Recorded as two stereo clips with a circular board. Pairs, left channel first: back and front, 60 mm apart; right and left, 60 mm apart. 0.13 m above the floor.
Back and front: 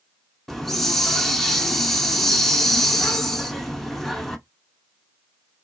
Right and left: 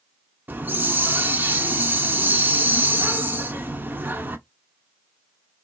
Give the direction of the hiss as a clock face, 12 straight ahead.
9 o'clock.